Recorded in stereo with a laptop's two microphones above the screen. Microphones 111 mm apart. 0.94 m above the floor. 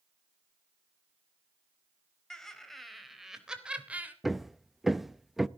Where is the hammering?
Centre (ahead or behind), 0.5 m.